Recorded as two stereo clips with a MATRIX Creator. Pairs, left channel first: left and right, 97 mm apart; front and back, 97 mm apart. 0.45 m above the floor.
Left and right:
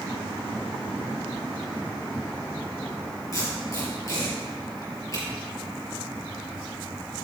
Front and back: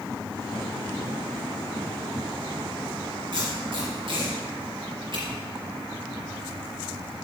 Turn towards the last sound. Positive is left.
turn(degrees=145)